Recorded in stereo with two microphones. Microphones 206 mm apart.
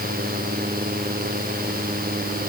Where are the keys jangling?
I don't hear keys jangling.